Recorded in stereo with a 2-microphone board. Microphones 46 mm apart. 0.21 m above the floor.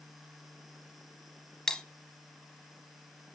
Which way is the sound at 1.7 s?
15° left (ahead or behind).